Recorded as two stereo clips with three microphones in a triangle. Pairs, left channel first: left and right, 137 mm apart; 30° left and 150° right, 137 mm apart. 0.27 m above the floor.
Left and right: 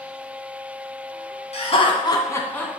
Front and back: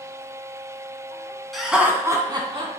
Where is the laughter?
120° left, 2 m; by 2.7 s 170° left, 2.5 m.